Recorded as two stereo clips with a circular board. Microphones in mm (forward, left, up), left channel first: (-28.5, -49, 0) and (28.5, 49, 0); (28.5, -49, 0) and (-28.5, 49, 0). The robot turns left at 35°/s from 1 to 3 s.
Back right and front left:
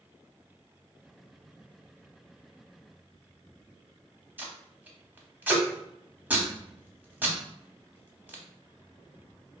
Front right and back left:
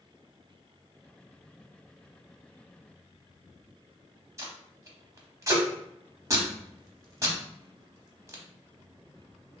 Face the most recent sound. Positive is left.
turn(degrees=115)